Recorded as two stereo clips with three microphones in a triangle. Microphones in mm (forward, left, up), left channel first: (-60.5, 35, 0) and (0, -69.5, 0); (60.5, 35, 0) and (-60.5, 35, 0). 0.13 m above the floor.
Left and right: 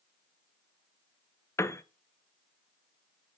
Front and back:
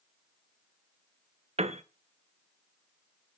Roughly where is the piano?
Behind.